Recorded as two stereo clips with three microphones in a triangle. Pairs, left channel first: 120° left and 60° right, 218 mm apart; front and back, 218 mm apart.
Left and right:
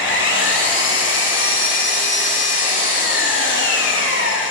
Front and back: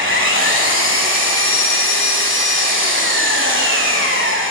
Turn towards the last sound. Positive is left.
turn(degrees=155)